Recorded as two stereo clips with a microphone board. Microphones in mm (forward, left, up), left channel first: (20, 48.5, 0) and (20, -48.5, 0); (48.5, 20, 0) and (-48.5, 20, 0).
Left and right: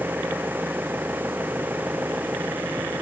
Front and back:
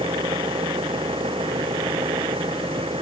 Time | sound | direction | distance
0.0 | an engine running | 160° right | ?